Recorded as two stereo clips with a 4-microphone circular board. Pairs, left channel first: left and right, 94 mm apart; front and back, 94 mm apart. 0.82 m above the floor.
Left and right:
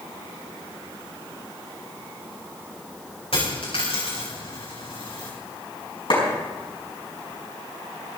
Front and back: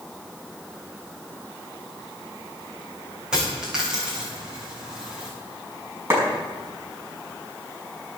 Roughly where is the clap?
Behind left.